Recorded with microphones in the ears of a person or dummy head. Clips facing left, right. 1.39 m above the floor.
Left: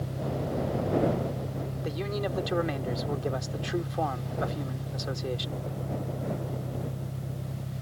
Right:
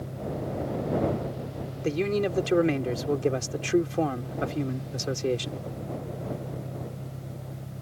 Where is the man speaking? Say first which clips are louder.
Right 8 dB; 30° right (ahead or behind).